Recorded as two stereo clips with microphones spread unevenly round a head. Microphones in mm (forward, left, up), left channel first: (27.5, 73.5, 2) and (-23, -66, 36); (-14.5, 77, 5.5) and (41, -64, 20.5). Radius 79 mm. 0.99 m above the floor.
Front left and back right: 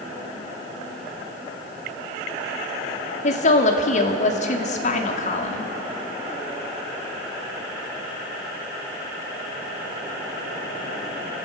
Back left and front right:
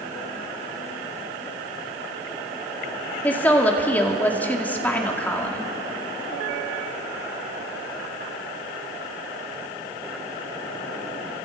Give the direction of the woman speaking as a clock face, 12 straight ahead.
11 o'clock.